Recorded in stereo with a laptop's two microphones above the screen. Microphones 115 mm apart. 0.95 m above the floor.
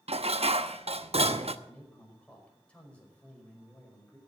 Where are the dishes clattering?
70° right (ahead or behind), 0.9 m.